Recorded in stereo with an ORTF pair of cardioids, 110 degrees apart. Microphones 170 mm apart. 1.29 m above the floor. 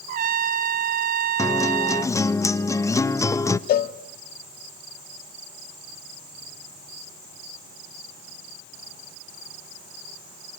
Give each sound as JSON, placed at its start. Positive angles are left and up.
{"t": 0.1, "sound": "a trumpet", "azimuth_deg": -55, "distance_m": 0.9}
{"t": 1.4, "sound": "a guitar", "azimuth_deg": 15, "distance_m": 0.6}
{"t": 3.7, "sound": "a cowbell", "azimuth_deg": 60, "distance_m": 0.9}